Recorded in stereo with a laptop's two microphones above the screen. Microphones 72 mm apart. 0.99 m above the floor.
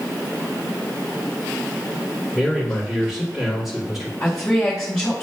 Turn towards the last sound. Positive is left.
turn(degrees=5)  # may be behind; listen again after turning